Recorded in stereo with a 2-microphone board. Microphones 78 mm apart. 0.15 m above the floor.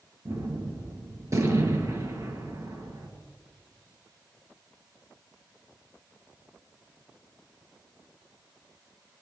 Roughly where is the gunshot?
Right.